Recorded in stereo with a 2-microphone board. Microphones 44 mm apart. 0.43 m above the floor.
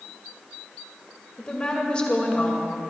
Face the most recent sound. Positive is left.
turn(degrees=25)  # may be behind; listen again after turning